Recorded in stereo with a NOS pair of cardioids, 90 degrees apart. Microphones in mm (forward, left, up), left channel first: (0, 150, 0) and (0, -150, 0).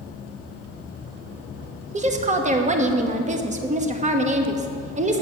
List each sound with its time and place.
1.9 s a woman speaking: 25° right, 1.0 m